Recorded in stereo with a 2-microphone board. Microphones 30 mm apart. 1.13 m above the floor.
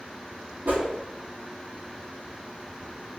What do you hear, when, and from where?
0.7 s a whoosh: 70° right (ahead or behind), 1.0 m